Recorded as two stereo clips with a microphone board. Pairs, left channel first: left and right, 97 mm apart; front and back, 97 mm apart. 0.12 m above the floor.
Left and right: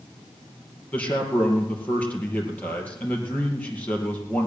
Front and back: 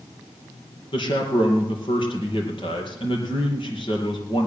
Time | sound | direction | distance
0.9 | a man speaking | 15° left | 4 m